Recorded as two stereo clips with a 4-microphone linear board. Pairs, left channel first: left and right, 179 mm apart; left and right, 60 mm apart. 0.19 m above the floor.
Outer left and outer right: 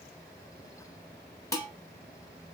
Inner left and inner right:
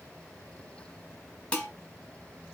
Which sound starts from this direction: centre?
Dishes clattering, at 1.5 s.